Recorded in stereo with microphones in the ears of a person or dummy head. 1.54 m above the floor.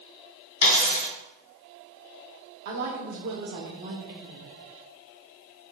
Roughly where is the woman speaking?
Right.